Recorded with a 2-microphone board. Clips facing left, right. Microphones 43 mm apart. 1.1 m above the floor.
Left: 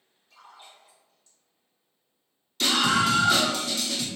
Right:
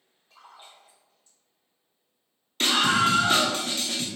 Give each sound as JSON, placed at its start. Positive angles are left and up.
{"t": 0.3, "sound": "a splash", "side_deg": -25, "distance_m": 1.5}
{"t": 2.6, "sound": "a scream", "side_deg": -40, "distance_m": 0.9}